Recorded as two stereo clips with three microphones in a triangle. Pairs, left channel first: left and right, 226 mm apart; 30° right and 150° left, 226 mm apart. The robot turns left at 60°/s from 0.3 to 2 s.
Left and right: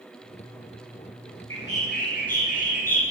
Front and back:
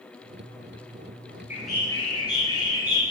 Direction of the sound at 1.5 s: 70° left.